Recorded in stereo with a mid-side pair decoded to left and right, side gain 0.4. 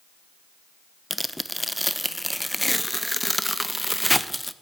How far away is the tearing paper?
About 0.5 m.